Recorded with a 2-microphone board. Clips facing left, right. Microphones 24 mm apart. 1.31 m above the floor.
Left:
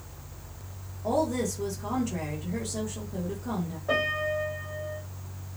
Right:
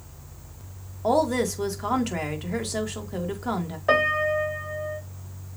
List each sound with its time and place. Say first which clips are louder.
1.0 s a woman speaking: right 5 dB; 65° right (ahead or behind), 2 m
3.9 s a piano: right 6 dB; 75° right (ahead or behind), 2.5 m